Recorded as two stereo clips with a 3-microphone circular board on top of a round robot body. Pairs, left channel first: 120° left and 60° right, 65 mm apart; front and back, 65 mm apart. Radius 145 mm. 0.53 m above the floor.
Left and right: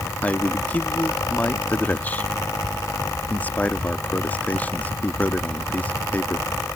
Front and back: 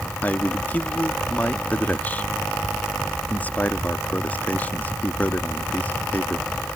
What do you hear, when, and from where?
0.2 s a man speaking: 60° left